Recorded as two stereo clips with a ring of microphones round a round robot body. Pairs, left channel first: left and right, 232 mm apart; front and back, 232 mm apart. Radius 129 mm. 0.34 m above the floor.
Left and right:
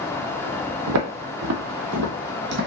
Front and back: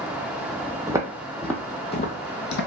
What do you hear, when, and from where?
0.9 s footsteps: 105° right, 0.8 m; by 2.7 s 35° right, 0.8 m